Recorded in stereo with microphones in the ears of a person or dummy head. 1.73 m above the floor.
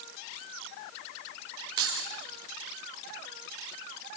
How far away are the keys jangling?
About 4.5 m.